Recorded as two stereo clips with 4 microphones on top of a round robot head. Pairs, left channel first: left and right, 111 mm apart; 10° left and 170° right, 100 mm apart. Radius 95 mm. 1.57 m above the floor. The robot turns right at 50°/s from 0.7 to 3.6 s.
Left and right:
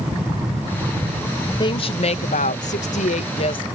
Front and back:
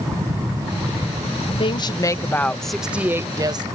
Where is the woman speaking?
35° left; by 3.6 s 140° left.